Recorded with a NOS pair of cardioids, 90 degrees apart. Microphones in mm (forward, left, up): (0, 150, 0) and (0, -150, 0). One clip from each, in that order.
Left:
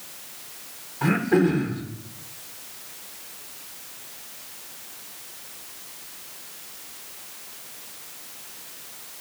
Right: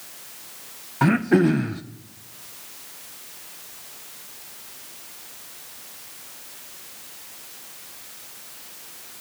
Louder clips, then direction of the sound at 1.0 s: Right 2 dB; 45° right.